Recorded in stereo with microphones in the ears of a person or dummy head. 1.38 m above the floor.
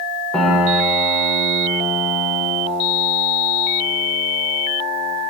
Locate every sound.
0.3 s a piano: 5° left (ahead or behind), 0.6 m